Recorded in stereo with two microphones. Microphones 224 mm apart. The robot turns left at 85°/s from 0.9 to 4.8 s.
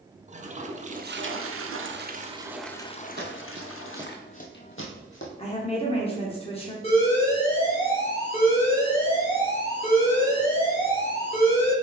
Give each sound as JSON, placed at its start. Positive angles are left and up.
{"t": 0.3, "sound": "a toilet flushing", "azimuth_deg": -35, "distance_m": 0.5}
{"t": 3.2, "sound": "running footsteps", "side_deg": -50, "distance_m": 0.9}
{"t": 5.4, "sound": "a woman speaking", "side_deg": 25, "distance_m": 0.7}
{"t": 6.8, "sound": "an alarm", "side_deg": 25, "distance_m": 1.4}